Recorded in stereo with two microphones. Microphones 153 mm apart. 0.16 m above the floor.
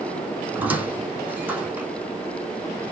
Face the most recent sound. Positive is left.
turn(degrees=-10)  # may be behind; listen again after turning